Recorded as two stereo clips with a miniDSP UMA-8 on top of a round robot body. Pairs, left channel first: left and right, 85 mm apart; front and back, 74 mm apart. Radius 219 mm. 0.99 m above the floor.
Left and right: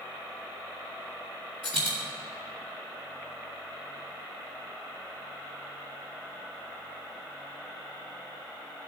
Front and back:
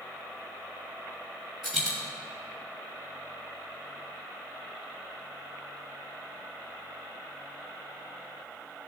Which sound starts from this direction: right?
A dropped coin, at 1.6 s.